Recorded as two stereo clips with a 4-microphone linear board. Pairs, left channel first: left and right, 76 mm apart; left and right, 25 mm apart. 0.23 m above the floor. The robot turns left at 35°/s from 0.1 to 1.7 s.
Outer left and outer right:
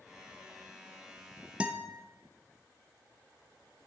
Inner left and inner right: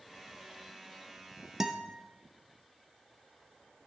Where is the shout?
I don't hear a shout.